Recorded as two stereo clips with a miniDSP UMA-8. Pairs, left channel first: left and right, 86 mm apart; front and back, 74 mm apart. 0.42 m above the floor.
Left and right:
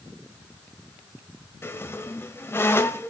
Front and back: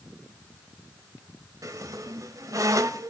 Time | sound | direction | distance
1.6 | a squeak | 150° left | 1.1 m